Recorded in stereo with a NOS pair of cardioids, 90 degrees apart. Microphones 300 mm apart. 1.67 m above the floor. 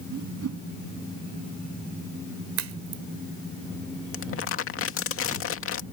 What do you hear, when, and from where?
0.1 s a whoosh: 50° right
2.6 s a crack: 65° right
4.1 s crumpling: 50° left